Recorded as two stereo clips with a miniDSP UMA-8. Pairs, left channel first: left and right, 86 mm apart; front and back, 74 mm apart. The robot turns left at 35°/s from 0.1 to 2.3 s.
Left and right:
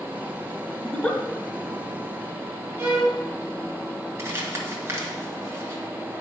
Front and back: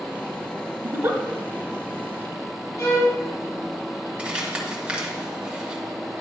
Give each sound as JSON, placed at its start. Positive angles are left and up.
{"t": 0.8, "sound": "a giggle", "azimuth_deg": 165, "distance_m": 1.0}
{"t": 2.8, "sound": "a violin", "azimuth_deg": -30, "distance_m": 2.5}
{"t": 4.2, "sound": "crumpling", "azimuth_deg": -115, "distance_m": 1.7}